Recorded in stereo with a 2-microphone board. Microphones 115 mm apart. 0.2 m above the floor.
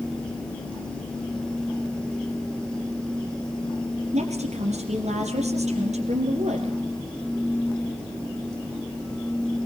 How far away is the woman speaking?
About 4 m.